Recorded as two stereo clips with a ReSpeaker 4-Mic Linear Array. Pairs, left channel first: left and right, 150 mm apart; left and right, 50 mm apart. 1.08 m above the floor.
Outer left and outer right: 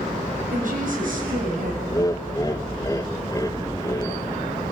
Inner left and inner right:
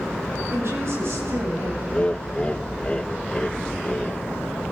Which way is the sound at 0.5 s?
65° right (ahead or behind).